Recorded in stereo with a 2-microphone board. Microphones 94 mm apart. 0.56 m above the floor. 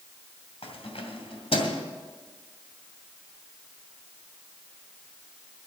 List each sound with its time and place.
0.6 s keys jangling: 80° left, 2 m; by 1.8 s 65° left (ahead or behind), 2 m